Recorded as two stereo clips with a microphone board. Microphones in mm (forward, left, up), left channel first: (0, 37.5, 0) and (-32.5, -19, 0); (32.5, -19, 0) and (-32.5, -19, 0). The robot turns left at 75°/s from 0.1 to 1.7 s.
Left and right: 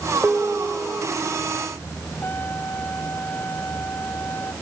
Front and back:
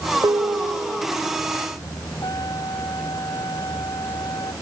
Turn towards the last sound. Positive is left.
turn(degrees=5)